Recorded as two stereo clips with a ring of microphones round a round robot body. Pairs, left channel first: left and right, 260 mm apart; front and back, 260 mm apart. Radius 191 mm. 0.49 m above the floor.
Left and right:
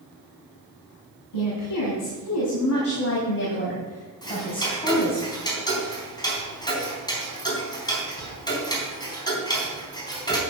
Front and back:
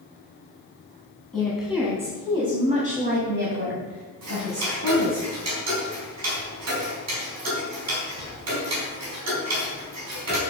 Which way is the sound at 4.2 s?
165° left.